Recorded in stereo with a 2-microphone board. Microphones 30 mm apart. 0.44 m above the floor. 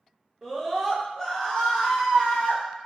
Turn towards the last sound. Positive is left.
turn(degrees=50)  # may be behind; listen again after turning